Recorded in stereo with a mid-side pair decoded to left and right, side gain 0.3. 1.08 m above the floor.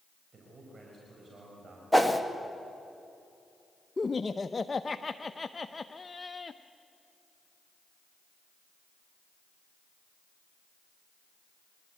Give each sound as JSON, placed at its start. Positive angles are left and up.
{"t": 0.3, "sound": "a man speaking", "azimuth_deg": -50, "distance_m": 5.0}
{"t": 1.9, "sound": "a whoosh", "azimuth_deg": -5, "distance_m": 1.9}
{"t": 4.0, "sound": "laughter", "azimuth_deg": 35, "distance_m": 0.6}